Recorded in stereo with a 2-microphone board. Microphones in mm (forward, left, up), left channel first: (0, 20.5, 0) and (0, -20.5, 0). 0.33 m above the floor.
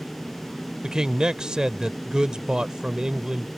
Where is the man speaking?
20° right (ahead or behind).